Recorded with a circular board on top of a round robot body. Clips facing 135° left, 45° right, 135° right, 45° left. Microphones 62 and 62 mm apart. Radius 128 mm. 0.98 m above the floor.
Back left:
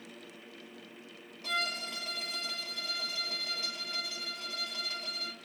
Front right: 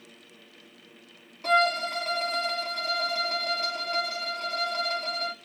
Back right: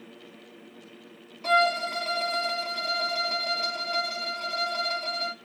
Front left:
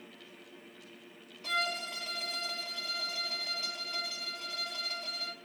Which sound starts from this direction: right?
A violin, at 1.4 s.